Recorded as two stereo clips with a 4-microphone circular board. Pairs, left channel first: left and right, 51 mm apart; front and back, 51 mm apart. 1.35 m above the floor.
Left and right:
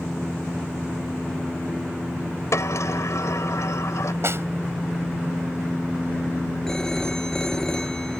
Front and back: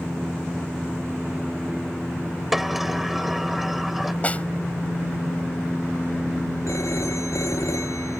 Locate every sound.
2.5 s a sliding door: 95° left
4.2 s a snare drum: 60° right
6.7 s a phone ringing: 10° left